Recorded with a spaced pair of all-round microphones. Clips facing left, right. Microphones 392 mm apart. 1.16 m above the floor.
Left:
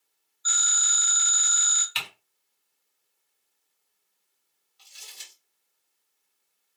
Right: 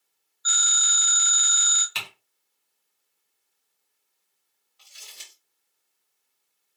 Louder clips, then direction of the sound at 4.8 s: Right 1 dB; 70° right (ahead or behind).